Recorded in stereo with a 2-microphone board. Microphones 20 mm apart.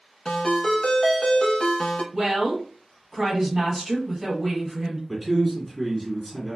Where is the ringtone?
40° left (ahead or behind), 0.9 m.